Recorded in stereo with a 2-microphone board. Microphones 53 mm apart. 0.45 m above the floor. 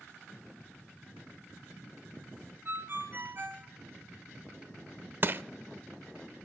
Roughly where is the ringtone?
Right.